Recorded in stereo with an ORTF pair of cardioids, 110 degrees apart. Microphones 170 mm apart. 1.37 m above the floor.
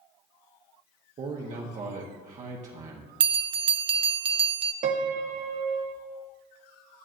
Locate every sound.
1.2 s a man speaking: 45° right, 1.1 m
3.2 s a bell: 35° right, 0.6 m
4.8 s a piano: 45° right, 0.8 m